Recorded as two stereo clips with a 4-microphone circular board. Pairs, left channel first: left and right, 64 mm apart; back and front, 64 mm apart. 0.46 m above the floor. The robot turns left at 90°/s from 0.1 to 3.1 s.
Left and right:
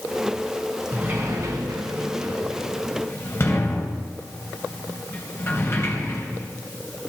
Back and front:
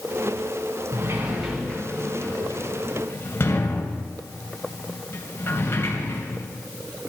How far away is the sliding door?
About 3 m.